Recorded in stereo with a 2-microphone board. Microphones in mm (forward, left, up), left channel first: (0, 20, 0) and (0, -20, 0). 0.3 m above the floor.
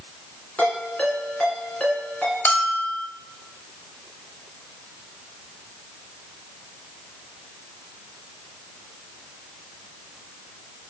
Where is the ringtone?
30° left (ahead or behind), 3 m.